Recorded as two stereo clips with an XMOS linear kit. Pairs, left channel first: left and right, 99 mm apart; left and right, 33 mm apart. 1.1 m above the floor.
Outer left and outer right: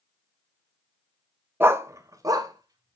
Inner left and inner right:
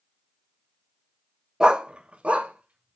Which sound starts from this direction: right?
A dog barking, at 1.6 s.